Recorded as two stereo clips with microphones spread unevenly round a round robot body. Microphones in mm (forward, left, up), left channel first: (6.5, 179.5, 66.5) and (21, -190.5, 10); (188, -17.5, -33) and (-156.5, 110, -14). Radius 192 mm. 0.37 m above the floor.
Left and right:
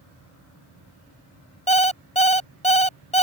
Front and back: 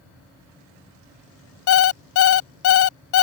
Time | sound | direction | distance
1.7 | an alarm clock | 15° left | ?